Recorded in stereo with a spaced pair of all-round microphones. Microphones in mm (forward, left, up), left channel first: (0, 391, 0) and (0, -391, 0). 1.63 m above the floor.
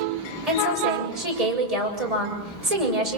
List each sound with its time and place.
0.5 s a woman speaking: 50° right (ahead or behind), 7.5 m